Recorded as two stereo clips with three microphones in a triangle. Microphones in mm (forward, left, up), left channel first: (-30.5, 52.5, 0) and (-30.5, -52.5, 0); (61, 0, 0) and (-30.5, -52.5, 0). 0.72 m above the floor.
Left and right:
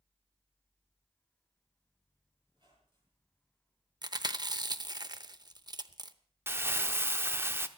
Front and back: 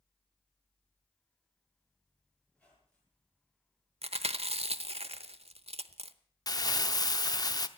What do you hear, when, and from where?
2.5 s a squeak: 50° right, 7.5 m
4.0 s chewing: 140° right, 0.7 m
6.5 s crumpling: 20° right, 0.8 m